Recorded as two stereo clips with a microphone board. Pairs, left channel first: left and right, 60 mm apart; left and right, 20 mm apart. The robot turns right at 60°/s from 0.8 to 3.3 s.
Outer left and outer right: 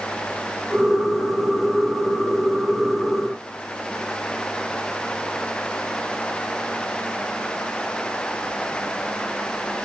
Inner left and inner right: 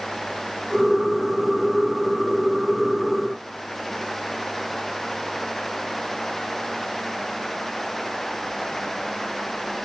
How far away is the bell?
No bell in this recording.